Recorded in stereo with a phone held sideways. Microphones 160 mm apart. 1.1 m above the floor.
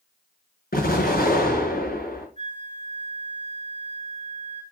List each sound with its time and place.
0.7 s an explosion: 65° left (ahead or behind), 6.5 m
2.4 s a flute: 45° right (ahead or behind), 3.5 m